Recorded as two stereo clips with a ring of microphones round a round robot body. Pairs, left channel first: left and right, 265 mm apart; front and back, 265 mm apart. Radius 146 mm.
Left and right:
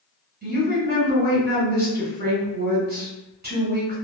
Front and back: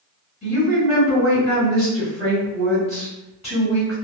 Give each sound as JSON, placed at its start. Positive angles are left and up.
{"t": 0.4, "sound": "a woman speaking", "azimuth_deg": -55, "distance_m": 1.7}